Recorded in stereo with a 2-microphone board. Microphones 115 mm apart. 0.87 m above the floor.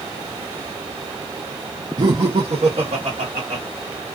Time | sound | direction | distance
2.0 | laughter | 35° right (ahead or behind) | 0.6 m